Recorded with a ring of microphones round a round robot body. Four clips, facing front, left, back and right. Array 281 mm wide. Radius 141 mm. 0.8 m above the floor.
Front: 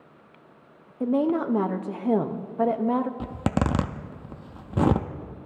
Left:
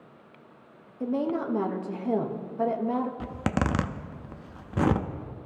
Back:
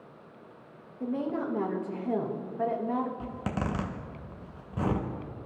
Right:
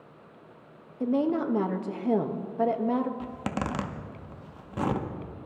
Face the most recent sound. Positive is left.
turn(degrees=20)